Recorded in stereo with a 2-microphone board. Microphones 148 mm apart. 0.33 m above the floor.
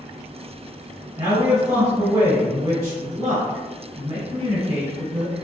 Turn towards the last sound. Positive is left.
turn(degrees=-25)  # may be behind; listen again after turning